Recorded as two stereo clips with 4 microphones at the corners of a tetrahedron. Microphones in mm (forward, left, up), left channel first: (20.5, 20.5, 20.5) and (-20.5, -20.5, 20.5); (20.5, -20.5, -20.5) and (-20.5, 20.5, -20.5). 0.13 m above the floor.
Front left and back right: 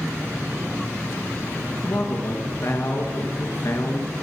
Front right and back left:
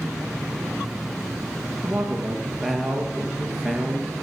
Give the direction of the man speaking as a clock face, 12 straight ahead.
10 o'clock.